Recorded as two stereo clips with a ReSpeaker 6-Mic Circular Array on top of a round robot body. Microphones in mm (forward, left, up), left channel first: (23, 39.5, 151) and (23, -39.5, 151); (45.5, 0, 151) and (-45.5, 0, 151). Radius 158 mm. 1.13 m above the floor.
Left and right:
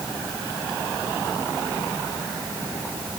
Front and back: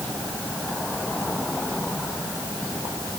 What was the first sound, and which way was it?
Only background noise.